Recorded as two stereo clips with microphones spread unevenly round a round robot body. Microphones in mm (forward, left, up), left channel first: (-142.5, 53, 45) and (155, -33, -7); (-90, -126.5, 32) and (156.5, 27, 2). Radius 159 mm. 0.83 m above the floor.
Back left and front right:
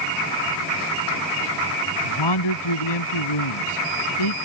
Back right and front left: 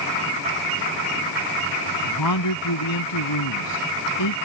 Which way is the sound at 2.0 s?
Straight behind.